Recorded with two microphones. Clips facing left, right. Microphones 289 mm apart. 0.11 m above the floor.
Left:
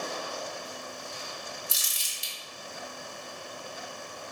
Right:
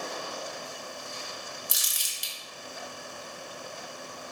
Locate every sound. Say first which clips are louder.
1.7 s crumpling: even; 20° right (ahead or behind), 0.7 m